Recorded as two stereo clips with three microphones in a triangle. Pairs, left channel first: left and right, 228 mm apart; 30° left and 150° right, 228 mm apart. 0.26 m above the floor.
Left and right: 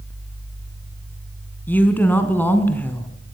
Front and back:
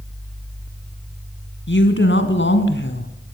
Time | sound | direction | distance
1.7 | a woman speaking | 10° left | 3 m